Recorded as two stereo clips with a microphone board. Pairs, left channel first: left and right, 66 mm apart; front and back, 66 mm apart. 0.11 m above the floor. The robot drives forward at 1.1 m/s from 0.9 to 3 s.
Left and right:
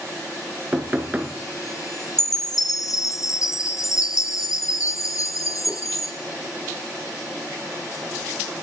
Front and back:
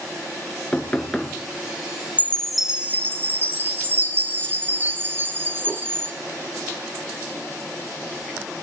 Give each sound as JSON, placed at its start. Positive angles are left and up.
{"t": 0.7, "sound": "knocking", "azimuth_deg": -50, "distance_m": 1.2}
{"t": 2.2, "sound": "a chime", "azimuth_deg": 65, "distance_m": 0.9}